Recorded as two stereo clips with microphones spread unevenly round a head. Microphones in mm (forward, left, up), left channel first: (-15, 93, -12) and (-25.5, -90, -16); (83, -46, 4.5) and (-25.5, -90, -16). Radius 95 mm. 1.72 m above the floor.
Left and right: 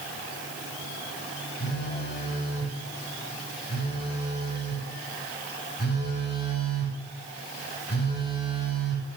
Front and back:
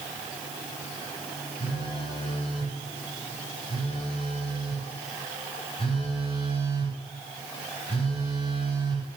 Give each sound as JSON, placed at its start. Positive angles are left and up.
{"t": 1.6, "sound": "a phone buzzing", "azimuth_deg": 55, "distance_m": 4.0}